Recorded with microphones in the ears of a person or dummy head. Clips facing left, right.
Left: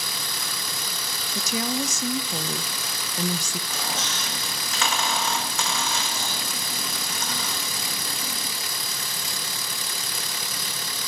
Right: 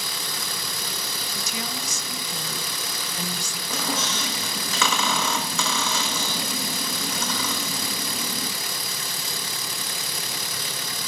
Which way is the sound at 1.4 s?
45° left (ahead or behind).